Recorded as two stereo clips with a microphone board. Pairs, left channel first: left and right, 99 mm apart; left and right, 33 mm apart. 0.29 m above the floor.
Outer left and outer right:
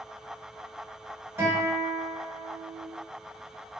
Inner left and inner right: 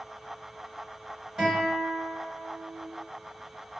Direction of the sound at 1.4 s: 25° right (ahead or behind).